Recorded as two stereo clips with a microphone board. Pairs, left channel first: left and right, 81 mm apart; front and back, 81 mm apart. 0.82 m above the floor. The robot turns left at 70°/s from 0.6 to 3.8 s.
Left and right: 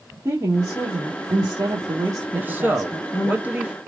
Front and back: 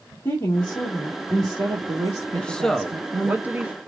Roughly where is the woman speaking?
Ahead right.